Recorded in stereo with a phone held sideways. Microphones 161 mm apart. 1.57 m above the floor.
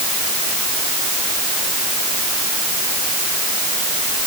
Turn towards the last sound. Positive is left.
No sound to turn to.